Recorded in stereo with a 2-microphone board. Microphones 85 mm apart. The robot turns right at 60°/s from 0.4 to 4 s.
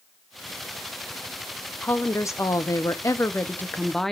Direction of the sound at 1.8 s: 40° left.